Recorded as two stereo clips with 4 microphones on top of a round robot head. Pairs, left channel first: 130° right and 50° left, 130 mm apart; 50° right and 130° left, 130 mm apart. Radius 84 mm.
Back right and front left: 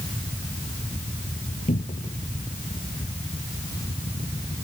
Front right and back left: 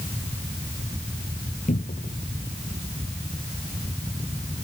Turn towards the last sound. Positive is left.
turn(degrees=-85)